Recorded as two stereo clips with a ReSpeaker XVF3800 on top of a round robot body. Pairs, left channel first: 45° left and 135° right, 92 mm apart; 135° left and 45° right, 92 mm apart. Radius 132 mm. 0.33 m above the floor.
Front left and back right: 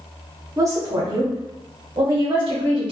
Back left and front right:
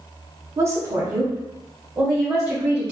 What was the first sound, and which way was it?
A woman speaking, 95° right.